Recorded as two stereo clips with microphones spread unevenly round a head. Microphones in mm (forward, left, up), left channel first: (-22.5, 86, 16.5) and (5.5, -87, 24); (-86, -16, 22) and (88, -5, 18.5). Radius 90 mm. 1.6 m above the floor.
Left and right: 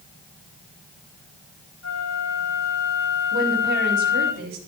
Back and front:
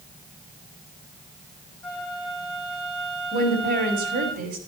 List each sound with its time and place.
1.8 s a flute: 100° left, 8.5 m
3.3 s a woman speaking: 45° right, 5.5 m